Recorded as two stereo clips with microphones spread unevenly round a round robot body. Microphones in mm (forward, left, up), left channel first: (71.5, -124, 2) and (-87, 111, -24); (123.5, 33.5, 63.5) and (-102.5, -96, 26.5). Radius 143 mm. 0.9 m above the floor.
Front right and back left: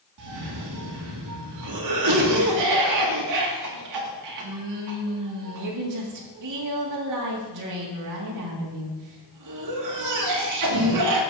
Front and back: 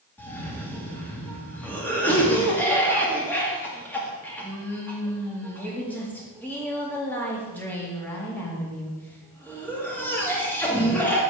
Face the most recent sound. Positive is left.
turn(degrees=115)